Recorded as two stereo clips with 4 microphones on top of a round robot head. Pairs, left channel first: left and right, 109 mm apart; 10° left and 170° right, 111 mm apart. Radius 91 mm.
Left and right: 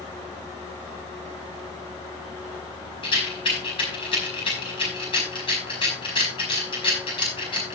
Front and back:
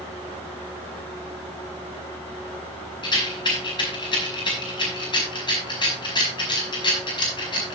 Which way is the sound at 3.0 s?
50° left.